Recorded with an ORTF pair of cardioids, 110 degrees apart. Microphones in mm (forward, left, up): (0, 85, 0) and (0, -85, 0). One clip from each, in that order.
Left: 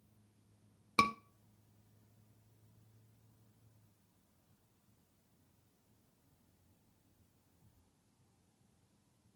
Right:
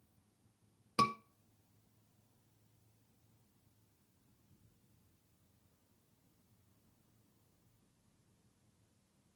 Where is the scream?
15° left, 1.9 m.